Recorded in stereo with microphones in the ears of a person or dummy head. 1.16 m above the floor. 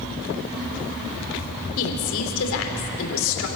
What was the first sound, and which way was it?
A woman speaking, 75° left (ahead or behind).